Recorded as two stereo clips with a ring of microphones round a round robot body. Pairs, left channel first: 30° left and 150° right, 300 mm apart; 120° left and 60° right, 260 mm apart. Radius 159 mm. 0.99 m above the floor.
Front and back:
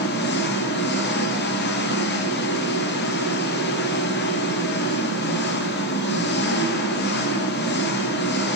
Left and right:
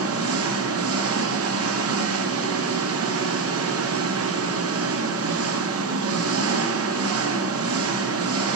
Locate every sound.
0.0 s an engine running: 25° right, 1.5 m